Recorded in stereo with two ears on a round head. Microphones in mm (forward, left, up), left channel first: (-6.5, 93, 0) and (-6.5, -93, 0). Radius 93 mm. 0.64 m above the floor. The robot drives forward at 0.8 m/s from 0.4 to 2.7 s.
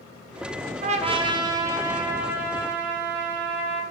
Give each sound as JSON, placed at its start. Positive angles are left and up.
{"t": 0.8, "sound": "a trumpet", "side_deg": -40, "distance_m": 0.5}